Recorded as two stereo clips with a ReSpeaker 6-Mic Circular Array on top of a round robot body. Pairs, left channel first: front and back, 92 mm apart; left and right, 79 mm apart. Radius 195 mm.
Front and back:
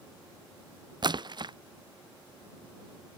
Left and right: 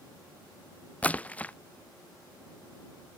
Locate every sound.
1.0 s a splash: 160° left